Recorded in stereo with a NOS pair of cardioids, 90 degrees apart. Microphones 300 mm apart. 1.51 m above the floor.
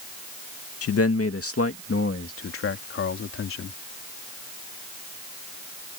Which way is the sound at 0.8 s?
50° left.